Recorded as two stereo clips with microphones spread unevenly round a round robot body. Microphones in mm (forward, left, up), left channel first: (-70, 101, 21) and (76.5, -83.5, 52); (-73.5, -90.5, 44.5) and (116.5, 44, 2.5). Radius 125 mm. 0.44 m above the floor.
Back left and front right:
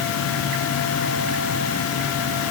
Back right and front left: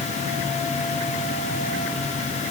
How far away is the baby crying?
No baby crying in this recording.